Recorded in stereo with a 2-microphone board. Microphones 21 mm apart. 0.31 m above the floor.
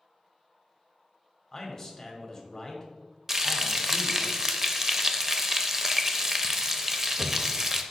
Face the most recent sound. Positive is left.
turn(degrees=-20)  # may be behind; listen again after turning